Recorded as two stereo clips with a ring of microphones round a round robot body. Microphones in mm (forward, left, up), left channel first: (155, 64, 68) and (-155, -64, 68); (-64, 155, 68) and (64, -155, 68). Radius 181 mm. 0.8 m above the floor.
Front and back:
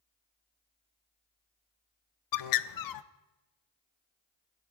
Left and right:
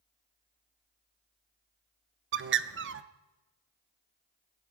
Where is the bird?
10° right, 0.8 m.